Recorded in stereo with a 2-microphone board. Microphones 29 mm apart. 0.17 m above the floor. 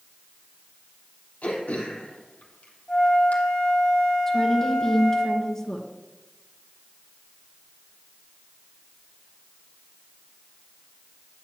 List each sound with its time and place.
1.4 s throat clearing: 55° left (ahead or behind), 3 m
2.9 s a flute: 30° left (ahead or behind), 4.5 m
4.3 s a woman speaking: 15° left (ahead or behind), 2.5 m